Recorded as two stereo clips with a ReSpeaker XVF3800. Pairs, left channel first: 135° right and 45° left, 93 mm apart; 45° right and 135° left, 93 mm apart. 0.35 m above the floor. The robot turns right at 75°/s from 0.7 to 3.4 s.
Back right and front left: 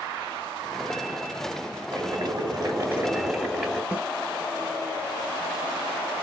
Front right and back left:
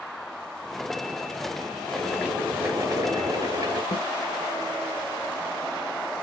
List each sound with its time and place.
1.9 s boiling: 25° left, 2.0 m; by 3.8 s 140° left, 2.0 m
3.9 s a snare drum: 30° right, 1.3 m